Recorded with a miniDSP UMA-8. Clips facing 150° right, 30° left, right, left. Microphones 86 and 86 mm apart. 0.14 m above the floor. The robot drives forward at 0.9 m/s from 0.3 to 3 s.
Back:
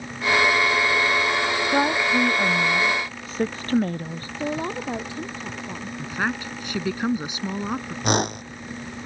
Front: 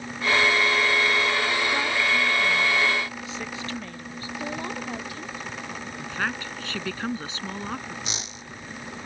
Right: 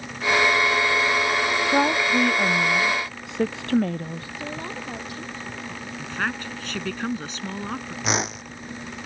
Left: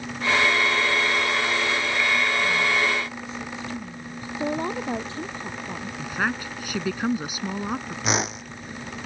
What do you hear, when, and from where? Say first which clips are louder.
1.7 s a woman speaking: back 4 dB, right 5 dB; 100° right; by 4.3 s 105° right
4.4 s a woman speaking: back 6 dB, left 9 dB; 150° left
6.0 s a woman speaking: back 3 dB, left 1 dB; 160° left
8.0 s a whoosh: back 15 dB, even; straight behind